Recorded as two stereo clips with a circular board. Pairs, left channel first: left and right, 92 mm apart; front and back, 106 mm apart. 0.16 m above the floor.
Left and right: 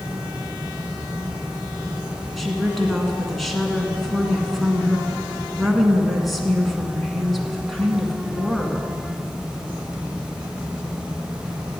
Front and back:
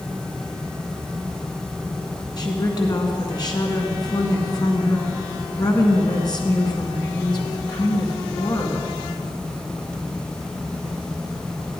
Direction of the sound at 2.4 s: Straight ahead.